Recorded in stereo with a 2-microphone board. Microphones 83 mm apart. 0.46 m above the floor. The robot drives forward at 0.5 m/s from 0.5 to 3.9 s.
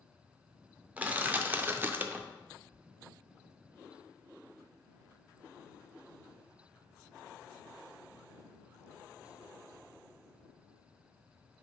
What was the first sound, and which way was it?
Crushing, 20° right (ahead or behind).